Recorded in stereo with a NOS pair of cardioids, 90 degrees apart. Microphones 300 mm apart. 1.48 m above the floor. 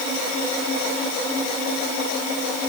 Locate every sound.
Only background noise.